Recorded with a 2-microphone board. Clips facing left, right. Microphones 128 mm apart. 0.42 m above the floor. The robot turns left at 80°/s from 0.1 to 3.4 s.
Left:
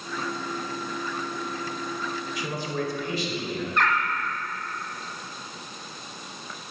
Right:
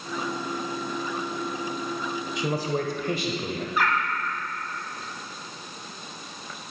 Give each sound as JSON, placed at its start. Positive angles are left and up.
{"t": 2.4, "sound": "a man speaking", "azimuth_deg": -30, "distance_m": 1.3}
{"t": 3.8, "sound": "a bird", "side_deg": -5, "distance_m": 1.1}